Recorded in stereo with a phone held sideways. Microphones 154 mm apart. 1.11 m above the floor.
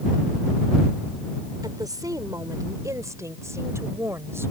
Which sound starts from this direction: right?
A woman speaking, at 1.6 s.